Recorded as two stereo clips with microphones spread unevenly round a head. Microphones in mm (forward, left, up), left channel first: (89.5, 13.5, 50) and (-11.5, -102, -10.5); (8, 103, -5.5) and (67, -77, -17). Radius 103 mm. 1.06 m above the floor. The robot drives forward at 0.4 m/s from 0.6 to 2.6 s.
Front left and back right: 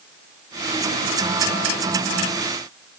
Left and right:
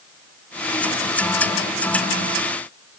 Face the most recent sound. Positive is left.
No sound to turn to.